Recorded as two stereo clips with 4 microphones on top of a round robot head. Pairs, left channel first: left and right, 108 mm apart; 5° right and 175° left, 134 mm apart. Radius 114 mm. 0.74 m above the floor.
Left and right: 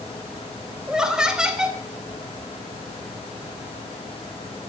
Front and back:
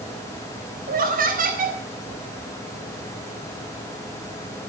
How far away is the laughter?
About 3 m.